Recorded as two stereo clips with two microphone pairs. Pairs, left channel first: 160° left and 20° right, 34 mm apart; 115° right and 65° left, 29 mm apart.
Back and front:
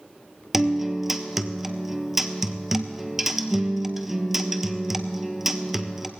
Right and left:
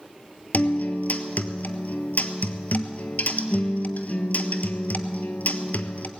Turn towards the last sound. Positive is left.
turn(degrees=-100)